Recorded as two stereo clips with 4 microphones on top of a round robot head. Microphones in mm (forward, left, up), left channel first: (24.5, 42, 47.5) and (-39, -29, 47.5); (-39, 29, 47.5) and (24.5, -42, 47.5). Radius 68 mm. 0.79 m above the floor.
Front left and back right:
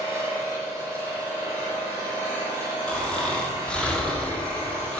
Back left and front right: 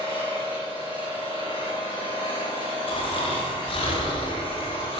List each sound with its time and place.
0.0 s an engine running: 160° left, 3.5 m
2.9 s snoring: 125° left, 1.6 m